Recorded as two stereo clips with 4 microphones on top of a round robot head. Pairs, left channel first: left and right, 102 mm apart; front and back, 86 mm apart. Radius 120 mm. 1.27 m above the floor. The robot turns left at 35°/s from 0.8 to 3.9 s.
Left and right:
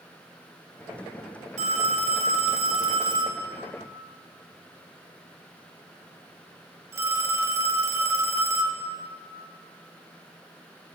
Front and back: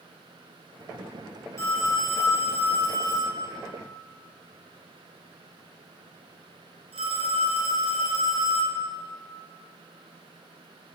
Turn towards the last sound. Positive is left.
turn(degrees=-150)